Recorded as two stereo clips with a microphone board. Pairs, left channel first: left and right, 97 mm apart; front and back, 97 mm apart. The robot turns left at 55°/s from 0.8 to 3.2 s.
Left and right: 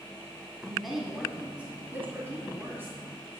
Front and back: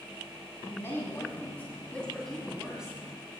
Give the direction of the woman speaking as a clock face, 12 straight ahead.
12 o'clock.